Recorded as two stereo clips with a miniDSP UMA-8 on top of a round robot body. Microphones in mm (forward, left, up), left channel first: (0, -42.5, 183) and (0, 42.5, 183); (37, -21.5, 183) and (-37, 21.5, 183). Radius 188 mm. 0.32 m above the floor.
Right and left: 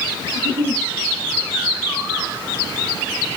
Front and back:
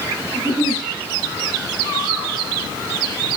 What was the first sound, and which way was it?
A giggle, 80° left.